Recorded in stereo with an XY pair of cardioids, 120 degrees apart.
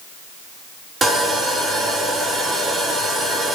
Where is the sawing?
15° right, 3.5 m.